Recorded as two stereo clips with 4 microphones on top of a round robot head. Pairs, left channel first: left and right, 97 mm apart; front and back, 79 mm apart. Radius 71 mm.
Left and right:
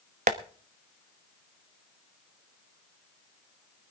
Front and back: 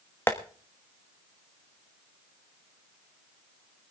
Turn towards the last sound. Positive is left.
turn(degrees=-75)